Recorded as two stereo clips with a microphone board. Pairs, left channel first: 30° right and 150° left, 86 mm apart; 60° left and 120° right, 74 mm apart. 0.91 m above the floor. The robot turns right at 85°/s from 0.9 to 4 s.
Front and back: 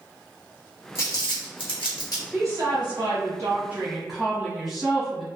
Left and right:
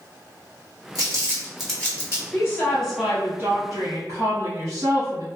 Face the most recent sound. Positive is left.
turn(degrees=-120)